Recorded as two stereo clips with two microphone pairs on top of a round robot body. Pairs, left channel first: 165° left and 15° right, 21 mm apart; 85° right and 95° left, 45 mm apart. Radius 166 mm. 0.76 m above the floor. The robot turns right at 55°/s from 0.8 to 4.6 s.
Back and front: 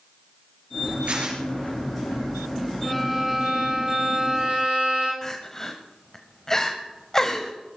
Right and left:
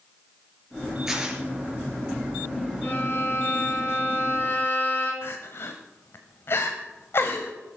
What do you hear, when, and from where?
1.1 s tearing paper: 15° left, 5 m; by 1.4 s 30° left, 5 m
2.8 s a violin: 130° right, 9.5 m; by 5.1 s 35° right, 9.5 m
5.2 s crying: 120° right, 0.9 m